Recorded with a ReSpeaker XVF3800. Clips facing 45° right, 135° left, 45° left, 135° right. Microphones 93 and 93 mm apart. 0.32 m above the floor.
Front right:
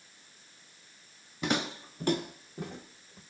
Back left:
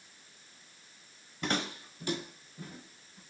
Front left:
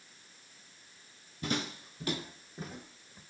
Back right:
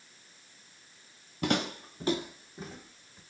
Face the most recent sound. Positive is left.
turn(degrees=-30)